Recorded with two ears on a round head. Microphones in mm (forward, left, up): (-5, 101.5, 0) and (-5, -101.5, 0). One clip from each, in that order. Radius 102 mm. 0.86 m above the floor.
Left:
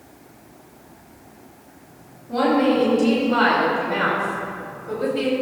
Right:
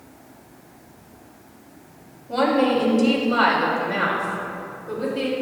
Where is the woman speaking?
35° right (ahead or behind), 4.5 m; by 5.3 s 5° left (ahead or behind), 4.5 m.